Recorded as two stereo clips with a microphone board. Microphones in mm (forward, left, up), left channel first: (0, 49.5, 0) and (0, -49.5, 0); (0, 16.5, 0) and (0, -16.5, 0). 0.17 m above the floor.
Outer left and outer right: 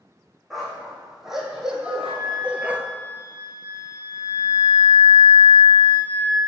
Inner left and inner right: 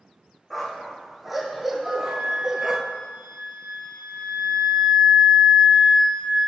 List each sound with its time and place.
0.5 s a dog barking: 5° right (ahead or behind), 3 m; by 2.8 s 20° right (ahead or behind), 0.9 m
1.8 s a flute: 50° right (ahead or behind), 3 m